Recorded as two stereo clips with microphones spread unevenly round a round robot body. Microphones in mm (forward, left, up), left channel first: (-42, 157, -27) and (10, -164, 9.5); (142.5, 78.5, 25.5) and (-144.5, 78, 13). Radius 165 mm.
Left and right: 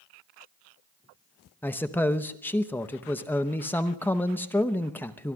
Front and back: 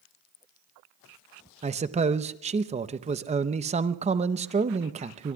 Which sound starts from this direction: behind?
A man speaking, at 1.6 s.